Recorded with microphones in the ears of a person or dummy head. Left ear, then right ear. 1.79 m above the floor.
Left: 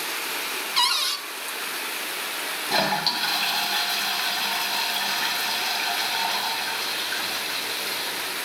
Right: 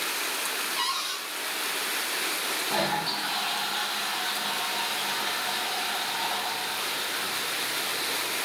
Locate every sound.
0.8 s a cupboard door: 50° left (ahead or behind), 0.8 m
2.7 s a toilet flushing: 60° left (ahead or behind), 1.0 m